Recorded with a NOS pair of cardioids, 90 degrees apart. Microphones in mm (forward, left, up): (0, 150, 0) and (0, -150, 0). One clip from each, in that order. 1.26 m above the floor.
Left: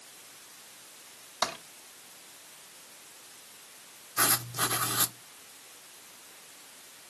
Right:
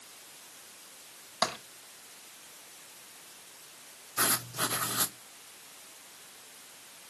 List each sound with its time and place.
1.4 s tapping: 25° right, 5.5 m
4.2 s writing: 10° left, 1.0 m